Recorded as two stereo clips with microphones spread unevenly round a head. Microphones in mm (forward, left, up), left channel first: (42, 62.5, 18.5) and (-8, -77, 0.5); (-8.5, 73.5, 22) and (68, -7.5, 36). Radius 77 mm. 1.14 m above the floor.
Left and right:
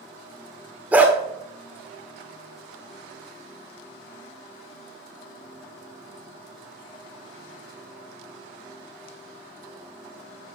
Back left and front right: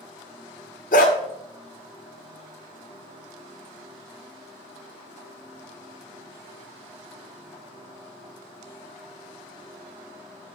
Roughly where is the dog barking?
Behind.